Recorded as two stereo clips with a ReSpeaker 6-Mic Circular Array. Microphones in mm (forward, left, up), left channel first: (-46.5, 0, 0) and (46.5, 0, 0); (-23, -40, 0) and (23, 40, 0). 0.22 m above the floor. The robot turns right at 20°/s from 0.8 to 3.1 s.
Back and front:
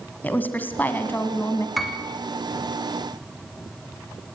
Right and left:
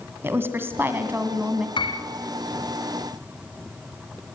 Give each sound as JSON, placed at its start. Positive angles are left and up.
{"t": 0.2, "sound": "a woman speaking", "azimuth_deg": 115, "distance_m": 1.8}
{"t": 1.8, "sound": "a piano", "azimuth_deg": -90, "distance_m": 2.5}